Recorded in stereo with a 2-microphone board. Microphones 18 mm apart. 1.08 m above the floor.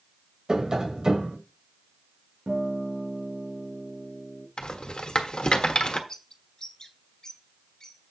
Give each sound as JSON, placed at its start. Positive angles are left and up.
{"t": 0.5, "sound": "tapping", "side_deg": -50, "distance_m": 1.4}
{"t": 2.5, "sound": "a guitar", "side_deg": -70, "distance_m": 3.5}
{"t": 4.6, "sound": "a rattle", "side_deg": 50, "distance_m": 1.3}
{"t": 6.1, "sound": "a bird", "side_deg": 45, "distance_m": 1.7}